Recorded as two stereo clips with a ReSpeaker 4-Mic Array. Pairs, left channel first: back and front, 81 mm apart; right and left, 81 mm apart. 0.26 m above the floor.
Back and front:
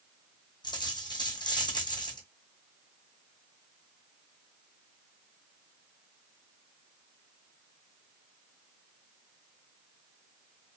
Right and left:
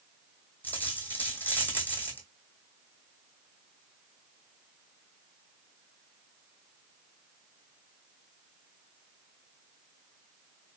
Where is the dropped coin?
160° right, 1.6 m.